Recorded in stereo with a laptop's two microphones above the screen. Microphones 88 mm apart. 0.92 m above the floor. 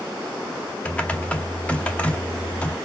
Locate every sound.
0.8 s typing on a keyboard: 15° left (ahead or behind), 0.8 m